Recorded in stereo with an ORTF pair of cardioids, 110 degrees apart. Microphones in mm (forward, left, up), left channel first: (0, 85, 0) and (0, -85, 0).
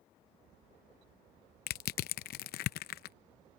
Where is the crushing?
65° left.